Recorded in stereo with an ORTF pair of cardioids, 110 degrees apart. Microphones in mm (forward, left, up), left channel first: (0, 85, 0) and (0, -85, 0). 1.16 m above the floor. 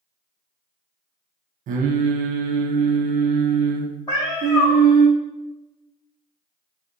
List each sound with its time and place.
1.7 s singing: 55° right, 0.5 m
4.1 s a cat meowing: 25° left, 1.8 m